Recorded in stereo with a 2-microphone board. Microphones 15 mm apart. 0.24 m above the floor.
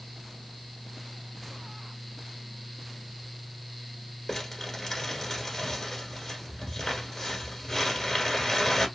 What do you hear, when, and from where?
4.3 s crumpling: 25° left (ahead or behind), 1.2 m